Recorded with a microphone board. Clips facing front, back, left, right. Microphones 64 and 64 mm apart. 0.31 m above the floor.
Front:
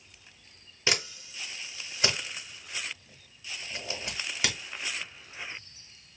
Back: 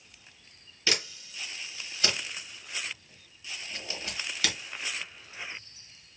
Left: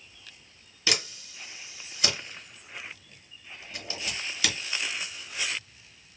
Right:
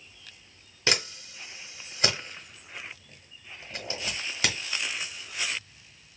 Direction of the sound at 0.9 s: 60° right.